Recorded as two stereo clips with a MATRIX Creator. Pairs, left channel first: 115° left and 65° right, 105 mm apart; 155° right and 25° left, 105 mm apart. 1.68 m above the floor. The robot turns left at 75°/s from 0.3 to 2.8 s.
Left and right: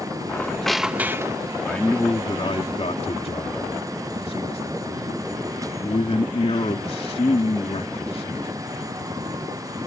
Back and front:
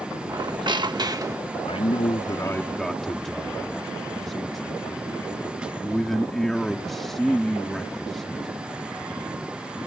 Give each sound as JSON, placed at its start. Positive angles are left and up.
{"t": 0.3, "sound": "a squeak", "azimuth_deg": 55}
{"t": 1.6, "sound": "a man speaking", "azimuth_deg": -160}